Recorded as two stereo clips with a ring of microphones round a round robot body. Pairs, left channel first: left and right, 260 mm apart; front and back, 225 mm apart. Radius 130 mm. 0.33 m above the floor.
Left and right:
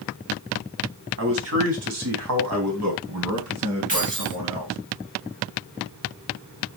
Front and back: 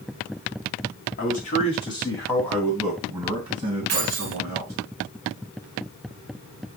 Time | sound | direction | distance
1.2 | a man speaking | 55° right | 3 m
3.9 | keys jangling | 150° right | 2.5 m